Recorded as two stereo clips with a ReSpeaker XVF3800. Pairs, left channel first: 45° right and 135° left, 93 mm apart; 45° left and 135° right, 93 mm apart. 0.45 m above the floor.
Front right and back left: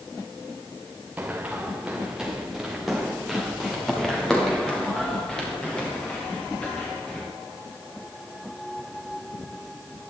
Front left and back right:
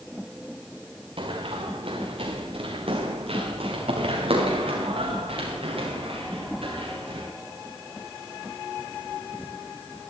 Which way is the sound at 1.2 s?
150° right.